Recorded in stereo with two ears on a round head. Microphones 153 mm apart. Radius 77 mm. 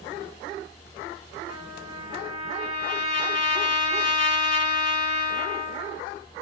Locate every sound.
1.5 s a trumpet: 45° left (ahead or behind), 1.8 m